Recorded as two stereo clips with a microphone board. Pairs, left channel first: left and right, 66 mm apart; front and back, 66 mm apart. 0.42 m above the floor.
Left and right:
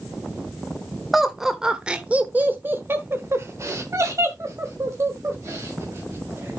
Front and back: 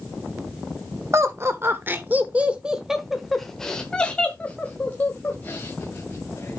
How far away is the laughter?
About 1.3 m.